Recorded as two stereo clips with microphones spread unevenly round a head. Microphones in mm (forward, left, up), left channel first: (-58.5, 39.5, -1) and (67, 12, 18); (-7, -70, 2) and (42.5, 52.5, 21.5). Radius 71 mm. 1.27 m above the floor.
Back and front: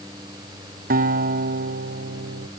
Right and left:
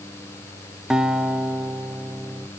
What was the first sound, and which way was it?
A guitar, 20° right.